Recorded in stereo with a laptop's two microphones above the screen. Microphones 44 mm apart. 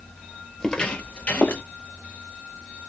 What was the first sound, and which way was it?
Footsteps, 15° left (ahead or behind).